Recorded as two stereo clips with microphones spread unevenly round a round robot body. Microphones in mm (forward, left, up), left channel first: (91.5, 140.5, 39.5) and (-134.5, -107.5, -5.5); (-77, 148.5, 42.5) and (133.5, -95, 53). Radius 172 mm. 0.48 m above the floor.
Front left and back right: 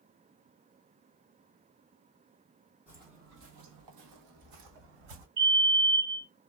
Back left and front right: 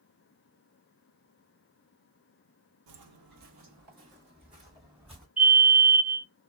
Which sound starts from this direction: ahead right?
Footsteps, at 2.9 s.